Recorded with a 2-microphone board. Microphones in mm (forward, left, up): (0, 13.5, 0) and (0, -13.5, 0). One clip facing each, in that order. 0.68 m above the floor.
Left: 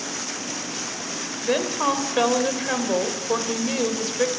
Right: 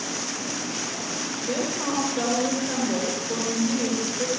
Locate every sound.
1.4 s a woman speaking: 50° left (ahead or behind), 3 m